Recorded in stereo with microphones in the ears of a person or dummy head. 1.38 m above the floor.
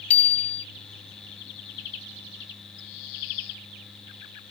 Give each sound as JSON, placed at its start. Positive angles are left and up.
{"t": 0.1, "sound": "a bicycle bell", "side_deg": 5}